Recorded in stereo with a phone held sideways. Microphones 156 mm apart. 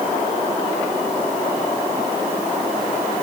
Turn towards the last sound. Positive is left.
No sound to turn to.